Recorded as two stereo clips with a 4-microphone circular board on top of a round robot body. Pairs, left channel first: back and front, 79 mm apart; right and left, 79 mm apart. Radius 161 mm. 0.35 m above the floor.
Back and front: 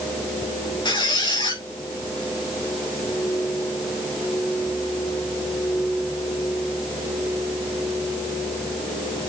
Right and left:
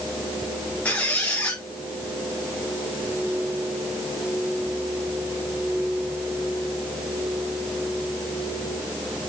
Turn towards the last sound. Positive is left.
turn(degrees=-160)